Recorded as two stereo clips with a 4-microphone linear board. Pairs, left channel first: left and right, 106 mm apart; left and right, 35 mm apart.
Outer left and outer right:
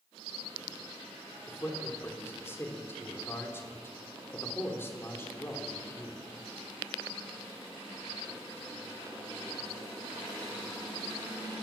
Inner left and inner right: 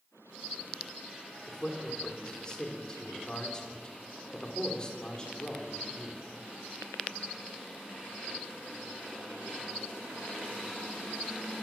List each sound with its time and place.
1.5 s a man speaking: 25° left (ahead or behind), 3 m